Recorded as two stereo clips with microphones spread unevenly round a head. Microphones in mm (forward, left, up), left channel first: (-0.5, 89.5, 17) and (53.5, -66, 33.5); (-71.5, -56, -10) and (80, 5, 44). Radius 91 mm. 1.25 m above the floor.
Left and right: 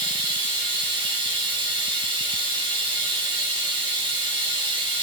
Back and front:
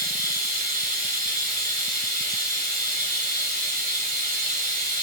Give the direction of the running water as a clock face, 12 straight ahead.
12 o'clock.